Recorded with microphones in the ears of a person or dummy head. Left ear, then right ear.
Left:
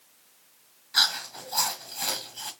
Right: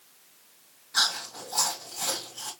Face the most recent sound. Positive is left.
turn(degrees=10)  # may be behind; listen again after turning